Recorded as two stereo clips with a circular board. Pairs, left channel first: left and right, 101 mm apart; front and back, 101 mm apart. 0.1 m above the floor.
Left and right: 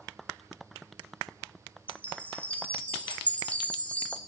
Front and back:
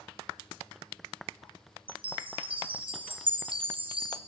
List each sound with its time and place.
1.9 s a chime: 165° left, 1.8 m